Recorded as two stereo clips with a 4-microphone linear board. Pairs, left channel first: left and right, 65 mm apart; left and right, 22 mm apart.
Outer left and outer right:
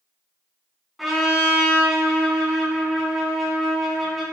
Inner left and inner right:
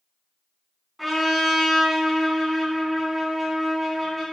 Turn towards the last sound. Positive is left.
turn(degrees=-5)  # may be behind; listen again after turning